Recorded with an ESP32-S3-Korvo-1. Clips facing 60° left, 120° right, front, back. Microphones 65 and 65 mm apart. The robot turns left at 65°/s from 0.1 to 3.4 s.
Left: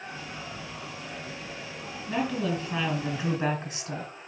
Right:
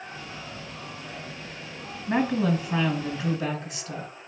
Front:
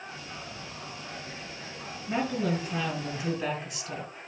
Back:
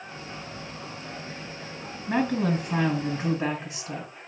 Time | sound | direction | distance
2.1 | a woman speaking | 155° right | 4 m